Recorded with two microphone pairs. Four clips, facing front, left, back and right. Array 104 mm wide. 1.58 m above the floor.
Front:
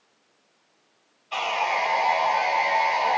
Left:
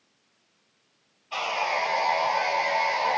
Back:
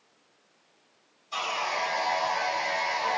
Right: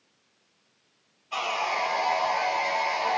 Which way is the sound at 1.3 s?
10° left.